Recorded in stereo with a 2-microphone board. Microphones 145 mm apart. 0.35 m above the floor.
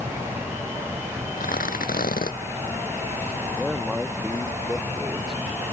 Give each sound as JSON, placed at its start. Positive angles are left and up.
{"t": 1.4, "sound": "tearing paper", "side_deg": 80}
{"t": 3.6, "sound": "a man speaking", "side_deg": 0}